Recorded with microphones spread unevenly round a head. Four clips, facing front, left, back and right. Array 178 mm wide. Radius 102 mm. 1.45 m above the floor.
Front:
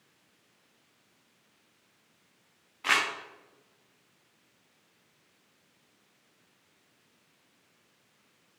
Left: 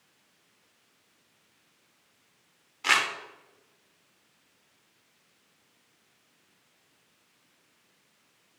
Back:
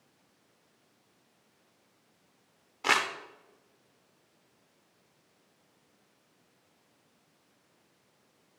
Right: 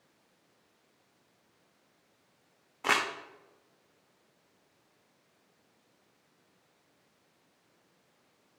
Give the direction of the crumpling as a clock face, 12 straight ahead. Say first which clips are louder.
Left 2 dB, back 1 dB; 5 o'clock.